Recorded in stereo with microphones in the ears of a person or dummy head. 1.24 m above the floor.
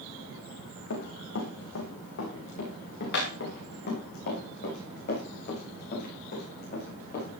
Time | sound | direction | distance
0.9 | running footsteps | 65° left (ahead or behind) | 4 m